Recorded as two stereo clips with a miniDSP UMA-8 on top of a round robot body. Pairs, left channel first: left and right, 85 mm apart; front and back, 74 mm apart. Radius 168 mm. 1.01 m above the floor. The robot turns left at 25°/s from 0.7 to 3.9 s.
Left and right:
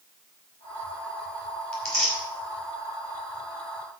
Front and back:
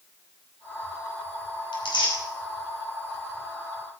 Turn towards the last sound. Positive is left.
turn(degrees=-50)